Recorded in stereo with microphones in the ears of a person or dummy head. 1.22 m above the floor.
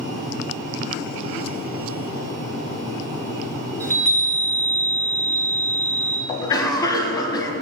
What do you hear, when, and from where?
3.8 s a chime: 10° left (ahead or behind), 1.3 m
6.3 s a cough: 25° left (ahead or behind), 1.0 m